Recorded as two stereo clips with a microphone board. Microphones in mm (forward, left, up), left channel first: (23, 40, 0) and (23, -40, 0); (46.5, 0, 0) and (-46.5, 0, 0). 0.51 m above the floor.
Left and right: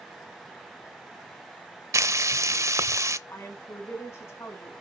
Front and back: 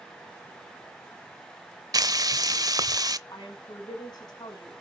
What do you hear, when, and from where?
1.9 s frying: 135° right, 0.6 m
3.3 s a woman speaking: 40° left, 4.5 m